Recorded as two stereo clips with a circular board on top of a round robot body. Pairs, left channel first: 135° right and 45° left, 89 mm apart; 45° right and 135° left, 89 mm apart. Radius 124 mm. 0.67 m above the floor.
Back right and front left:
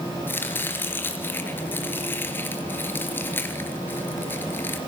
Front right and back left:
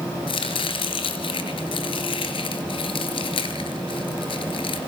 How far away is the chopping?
About 3 m.